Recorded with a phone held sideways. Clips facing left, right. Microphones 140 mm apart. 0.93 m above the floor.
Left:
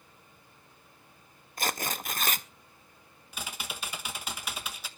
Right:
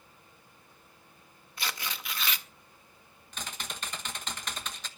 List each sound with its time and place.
1.6 s tearing paper: 45° left (ahead or behind), 0.5 m
3.3 s typing on a keyboard: 10° left (ahead or behind), 1.1 m